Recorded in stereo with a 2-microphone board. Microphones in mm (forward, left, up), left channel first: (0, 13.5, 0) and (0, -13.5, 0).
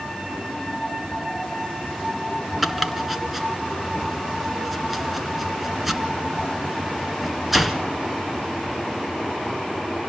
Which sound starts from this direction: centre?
Chopping, at 2.6 s.